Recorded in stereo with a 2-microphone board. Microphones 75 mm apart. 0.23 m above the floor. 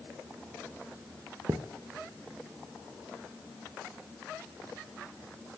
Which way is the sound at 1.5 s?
50° right (ahead or behind).